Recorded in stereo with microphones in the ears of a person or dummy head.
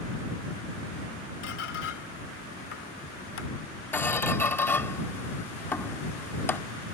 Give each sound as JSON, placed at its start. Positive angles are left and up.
{"t": 1.4, "sound": "a squeak", "side_deg": 75}
{"t": 3.9, "sound": "a squeak", "side_deg": 15}